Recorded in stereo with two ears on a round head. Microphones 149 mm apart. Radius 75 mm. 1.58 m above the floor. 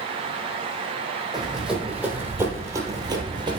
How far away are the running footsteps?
About 2.5 m.